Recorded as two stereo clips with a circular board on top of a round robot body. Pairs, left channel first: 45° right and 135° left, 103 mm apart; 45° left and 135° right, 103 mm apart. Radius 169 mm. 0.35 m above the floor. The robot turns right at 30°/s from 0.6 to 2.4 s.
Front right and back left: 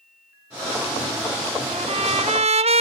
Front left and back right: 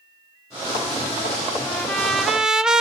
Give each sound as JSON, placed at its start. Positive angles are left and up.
{"t": 1.7, "sound": "a trumpet", "azimuth_deg": 120, "distance_m": 1.1}